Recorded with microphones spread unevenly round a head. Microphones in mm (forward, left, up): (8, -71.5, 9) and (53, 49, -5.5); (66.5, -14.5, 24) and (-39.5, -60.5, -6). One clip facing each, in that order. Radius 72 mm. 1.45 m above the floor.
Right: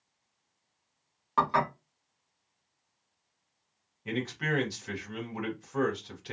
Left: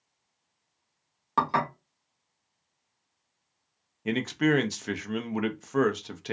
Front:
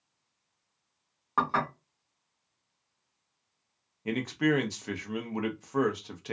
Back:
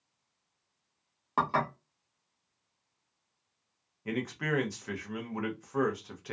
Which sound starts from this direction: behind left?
Dishes clattering, at 1.4 s.